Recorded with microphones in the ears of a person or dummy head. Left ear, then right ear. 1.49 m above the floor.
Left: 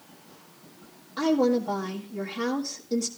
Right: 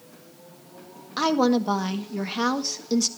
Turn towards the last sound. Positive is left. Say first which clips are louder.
# right 2 dB
turn(degrees=-50)  # may be behind; listen again after turning